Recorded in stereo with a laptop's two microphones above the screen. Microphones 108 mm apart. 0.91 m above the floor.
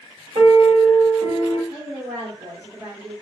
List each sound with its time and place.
0.3 s a piano: 60° right (ahead or behind), 2.0 m
1.7 s a woman speaking: 55° right (ahead or behind), 1.5 m